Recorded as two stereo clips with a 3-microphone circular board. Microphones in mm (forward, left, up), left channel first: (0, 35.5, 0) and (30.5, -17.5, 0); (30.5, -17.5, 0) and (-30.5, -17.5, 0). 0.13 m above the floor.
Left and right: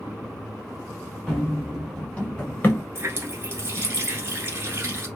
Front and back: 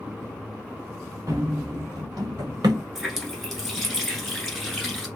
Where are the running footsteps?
155° right, 1.6 m; by 2.8 s straight behind, 1.1 m.